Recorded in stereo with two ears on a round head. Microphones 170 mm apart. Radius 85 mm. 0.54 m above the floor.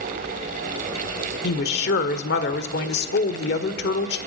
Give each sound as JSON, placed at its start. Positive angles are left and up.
{"t": 1.4, "sound": "a woman speaking", "side_deg": 60, "distance_m": 1.6}